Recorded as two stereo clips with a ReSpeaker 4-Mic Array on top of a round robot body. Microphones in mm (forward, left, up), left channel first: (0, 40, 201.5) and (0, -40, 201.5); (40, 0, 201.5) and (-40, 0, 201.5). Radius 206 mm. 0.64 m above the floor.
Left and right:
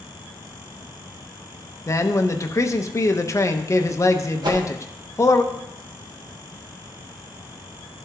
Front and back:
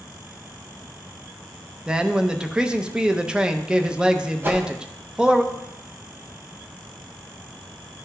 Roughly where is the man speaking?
Left.